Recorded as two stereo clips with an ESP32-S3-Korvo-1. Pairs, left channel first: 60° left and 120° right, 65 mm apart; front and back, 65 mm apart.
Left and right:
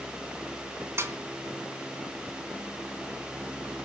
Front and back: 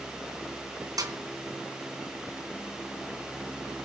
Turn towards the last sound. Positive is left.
turn(degrees=-165)